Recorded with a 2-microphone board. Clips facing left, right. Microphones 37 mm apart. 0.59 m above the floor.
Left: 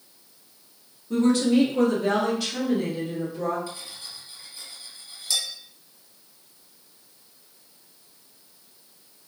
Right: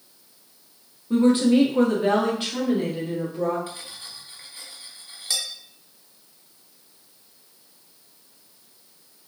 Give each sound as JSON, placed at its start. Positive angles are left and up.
{"t": 1.1, "sound": "a woman speaking", "side_deg": -20, "distance_m": 0.9}
{"t": 3.7, "sound": "cutlery clinking", "side_deg": -45, "distance_m": 1.0}